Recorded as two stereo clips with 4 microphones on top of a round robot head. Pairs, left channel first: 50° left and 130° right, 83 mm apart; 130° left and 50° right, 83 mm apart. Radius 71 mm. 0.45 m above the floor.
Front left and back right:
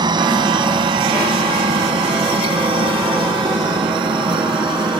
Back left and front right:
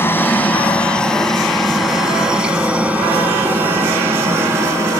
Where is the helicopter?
165° right; by 5.0 s 100° right.